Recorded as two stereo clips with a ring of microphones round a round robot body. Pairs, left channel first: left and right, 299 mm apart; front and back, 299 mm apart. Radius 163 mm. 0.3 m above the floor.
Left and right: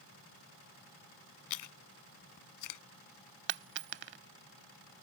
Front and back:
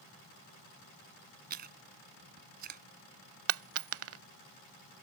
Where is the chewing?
120° left.